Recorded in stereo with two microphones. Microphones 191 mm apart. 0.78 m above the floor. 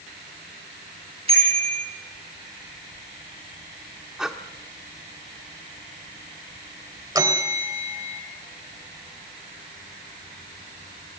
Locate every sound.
1.3 s a bicycle bell: 30° right (ahead or behind), 9.5 m
4.2 s breathing: 5° right (ahead or behind), 1.5 m
7.2 s a bell: 20° right (ahead or behind), 3 m